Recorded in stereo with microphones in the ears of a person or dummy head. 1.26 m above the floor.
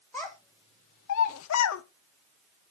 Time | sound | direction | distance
0.1 | a child speaking | 10° left (ahead or behind) | 0.9 m